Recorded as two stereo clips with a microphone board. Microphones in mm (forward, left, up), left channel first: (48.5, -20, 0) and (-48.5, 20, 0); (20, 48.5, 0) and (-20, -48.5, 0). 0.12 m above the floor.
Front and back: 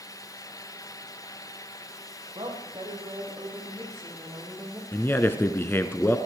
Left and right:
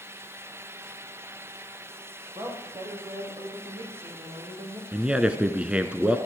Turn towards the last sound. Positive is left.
turn(degrees=-50)